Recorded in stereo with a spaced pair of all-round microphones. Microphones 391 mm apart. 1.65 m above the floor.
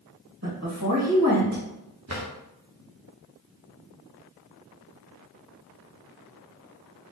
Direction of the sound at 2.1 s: 40° right (ahead or behind).